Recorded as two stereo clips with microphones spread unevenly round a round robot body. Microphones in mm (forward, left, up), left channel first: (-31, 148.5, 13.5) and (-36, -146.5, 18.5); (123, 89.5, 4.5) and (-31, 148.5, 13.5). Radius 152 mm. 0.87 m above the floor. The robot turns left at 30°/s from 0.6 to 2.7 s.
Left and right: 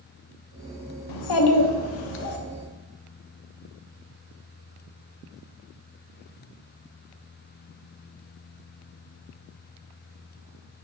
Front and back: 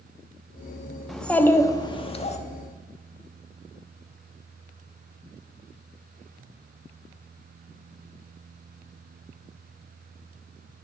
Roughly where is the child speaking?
Left.